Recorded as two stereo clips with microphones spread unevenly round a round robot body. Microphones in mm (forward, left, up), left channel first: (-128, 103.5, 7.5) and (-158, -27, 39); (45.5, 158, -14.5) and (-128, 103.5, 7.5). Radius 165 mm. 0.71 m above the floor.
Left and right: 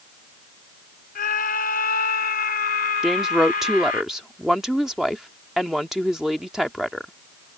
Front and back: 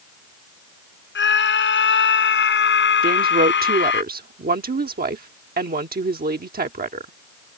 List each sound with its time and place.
1.1 s a scream: 30° left
3.0 s a woman speaking: 165° left